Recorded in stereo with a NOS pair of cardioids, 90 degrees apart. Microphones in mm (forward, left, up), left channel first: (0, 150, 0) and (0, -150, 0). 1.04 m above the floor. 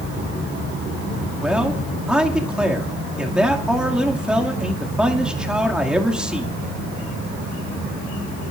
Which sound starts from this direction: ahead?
A man speaking, at 1.4 s.